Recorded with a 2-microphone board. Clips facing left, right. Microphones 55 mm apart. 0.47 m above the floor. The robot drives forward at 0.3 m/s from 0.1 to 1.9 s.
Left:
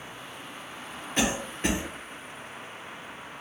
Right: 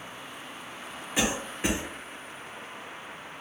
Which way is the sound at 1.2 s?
5° right (ahead or behind).